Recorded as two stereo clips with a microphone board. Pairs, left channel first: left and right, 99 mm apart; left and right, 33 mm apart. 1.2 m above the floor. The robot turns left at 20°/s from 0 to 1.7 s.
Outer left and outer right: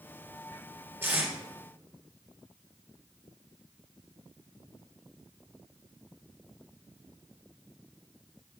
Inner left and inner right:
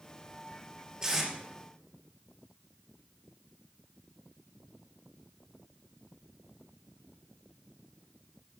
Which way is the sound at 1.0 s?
20° right (ahead or behind).